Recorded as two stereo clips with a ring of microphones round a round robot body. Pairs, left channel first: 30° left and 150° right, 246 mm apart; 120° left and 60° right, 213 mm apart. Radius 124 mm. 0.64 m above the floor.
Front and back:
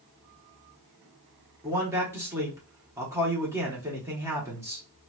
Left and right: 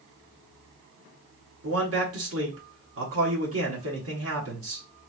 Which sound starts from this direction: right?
A man speaking, at 1.6 s.